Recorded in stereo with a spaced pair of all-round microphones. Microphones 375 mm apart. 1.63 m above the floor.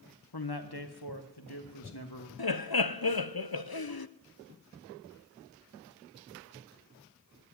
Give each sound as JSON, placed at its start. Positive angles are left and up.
{"t": 0.3, "sound": "a man speaking", "side_deg": 85, "distance_m": 1.4}
{"t": 2.4, "sound": "laughter", "side_deg": 70, "distance_m": 0.8}